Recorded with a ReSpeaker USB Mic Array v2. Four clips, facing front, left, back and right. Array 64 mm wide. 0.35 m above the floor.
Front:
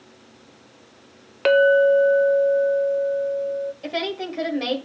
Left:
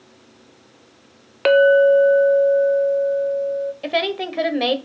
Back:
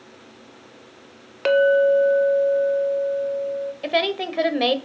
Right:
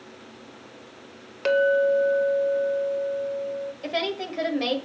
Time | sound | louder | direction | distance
1.4 | a clink | left 8 dB, front 1 dB | 75° left | 0.6 m
3.8 | a woman speaking | left 3 dB, back 5 dB | 135° left | 1.8 m